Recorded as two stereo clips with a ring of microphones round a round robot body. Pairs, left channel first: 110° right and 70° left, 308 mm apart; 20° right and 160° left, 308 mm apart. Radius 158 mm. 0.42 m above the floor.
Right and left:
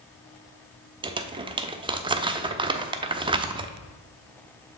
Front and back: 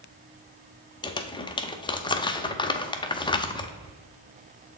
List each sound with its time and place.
1.0 s crumpling: 25° left, 0.7 m